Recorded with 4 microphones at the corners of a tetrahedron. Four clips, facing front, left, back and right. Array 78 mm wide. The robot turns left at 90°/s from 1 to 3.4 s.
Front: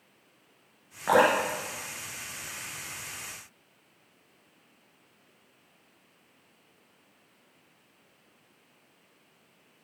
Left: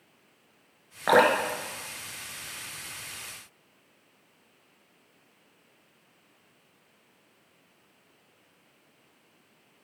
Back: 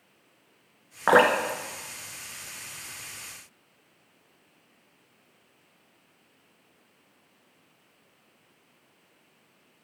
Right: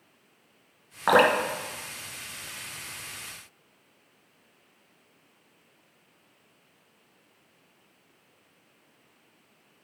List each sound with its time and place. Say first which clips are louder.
1.1 s dripping: right 1 dB, back 3 dB; 170° right, 1.5 m; by 2.8 s 35° left, 1.5 m